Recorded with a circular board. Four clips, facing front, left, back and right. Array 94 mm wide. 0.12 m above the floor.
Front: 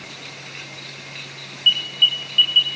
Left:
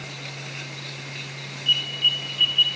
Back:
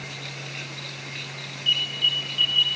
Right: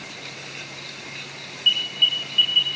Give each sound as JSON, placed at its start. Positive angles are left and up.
{"t": 1.7, "sound": "an alarm", "azimuth_deg": -30, "distance_m": 2.5}